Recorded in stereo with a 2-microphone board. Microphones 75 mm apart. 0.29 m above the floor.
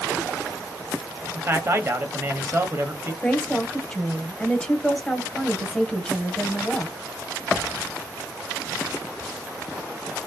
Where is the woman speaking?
15° left (ahead or behind), 1.2 m.